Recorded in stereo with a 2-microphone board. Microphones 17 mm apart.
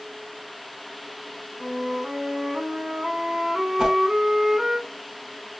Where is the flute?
50° right (ahead or behind), 0.7 m.